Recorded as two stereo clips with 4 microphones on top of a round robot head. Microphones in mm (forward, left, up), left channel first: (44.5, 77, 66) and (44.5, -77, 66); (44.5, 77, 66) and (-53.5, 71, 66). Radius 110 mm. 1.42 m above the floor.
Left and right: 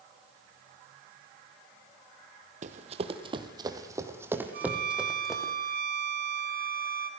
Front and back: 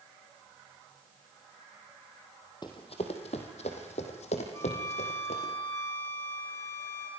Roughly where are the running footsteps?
Ahead right.